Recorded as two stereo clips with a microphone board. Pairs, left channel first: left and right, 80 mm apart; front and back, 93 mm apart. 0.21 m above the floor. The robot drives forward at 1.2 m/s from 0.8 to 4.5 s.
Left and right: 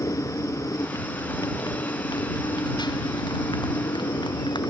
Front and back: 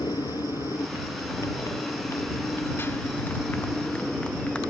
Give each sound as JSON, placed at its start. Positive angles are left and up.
{"t": 0.0, "sound": "a motorcycle", "azimuth_deg": 45}